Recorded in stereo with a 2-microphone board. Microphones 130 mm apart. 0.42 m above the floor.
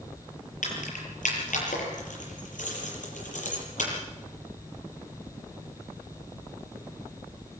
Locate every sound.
0.6 s keys jangling: 85° left, 7 m; by 3.9 s 80° left, 8.5 m